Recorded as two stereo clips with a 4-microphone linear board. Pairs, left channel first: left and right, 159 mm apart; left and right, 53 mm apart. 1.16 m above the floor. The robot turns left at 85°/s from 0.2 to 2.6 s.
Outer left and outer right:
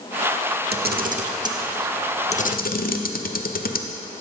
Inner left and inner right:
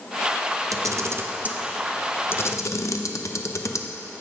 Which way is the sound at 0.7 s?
90° right.